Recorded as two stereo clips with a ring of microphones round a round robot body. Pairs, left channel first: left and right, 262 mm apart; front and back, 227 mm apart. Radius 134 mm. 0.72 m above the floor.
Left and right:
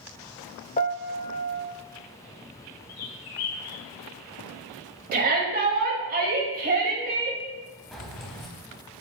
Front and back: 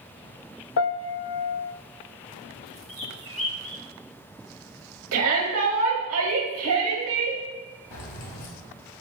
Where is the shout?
145° right, 4 m.